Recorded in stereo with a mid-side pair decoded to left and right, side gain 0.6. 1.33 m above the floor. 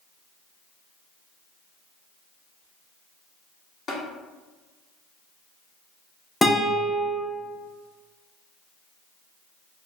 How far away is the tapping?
About 1.1 m.